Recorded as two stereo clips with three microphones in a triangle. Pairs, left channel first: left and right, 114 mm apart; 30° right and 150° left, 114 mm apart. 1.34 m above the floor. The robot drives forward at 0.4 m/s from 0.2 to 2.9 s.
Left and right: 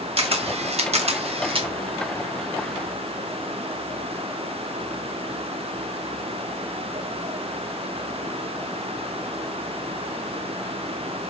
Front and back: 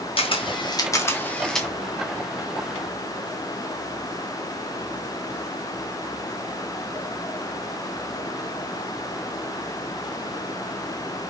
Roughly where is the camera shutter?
Ahead right.